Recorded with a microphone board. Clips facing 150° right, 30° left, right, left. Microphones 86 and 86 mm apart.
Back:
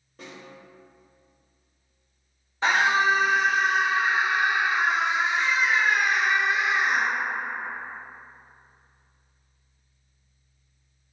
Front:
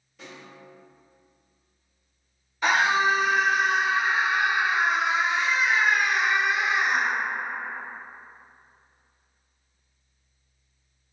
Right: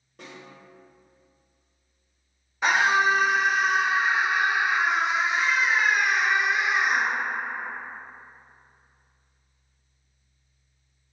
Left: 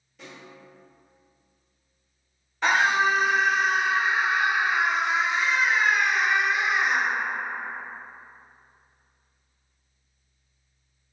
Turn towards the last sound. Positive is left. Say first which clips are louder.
# even, even
turn(degrees=-160)